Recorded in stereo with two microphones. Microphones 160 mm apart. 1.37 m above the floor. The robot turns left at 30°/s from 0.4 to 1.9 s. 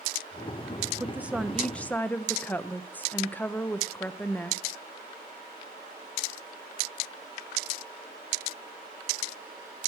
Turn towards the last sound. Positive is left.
turn(degrees=10)  # may be behind; listen again after turning